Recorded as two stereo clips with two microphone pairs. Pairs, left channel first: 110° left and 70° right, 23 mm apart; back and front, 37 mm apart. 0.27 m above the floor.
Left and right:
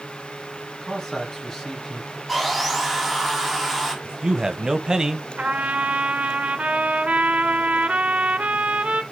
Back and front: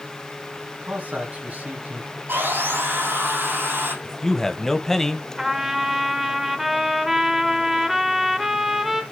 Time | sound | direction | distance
0.8 | a man speaking | 40° left | 3.5 m
2.3 | sawing | 20° left | 6.5 m
4.0 | a man speaking | 105° right | 1.1 m
5.4 | a trumpet | 80° right | 1.5 m